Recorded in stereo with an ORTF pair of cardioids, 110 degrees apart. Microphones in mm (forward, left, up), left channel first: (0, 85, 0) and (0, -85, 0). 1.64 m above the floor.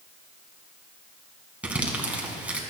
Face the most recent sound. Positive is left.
turn(degrees=-10)